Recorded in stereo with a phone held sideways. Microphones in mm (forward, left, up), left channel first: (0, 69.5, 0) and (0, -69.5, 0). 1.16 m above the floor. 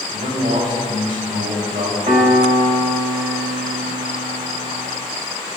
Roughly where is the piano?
Right.